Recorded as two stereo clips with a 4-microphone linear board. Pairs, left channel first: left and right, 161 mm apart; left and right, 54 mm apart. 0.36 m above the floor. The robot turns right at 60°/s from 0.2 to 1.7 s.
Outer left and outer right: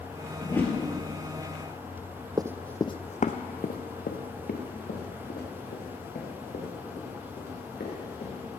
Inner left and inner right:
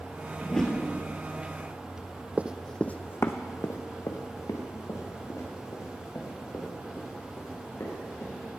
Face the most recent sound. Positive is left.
turn(degrees=80)